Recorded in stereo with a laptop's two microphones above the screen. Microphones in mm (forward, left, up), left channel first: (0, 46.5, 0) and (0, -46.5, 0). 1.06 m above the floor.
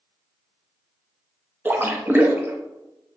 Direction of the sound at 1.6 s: 20° right (ahead or behind).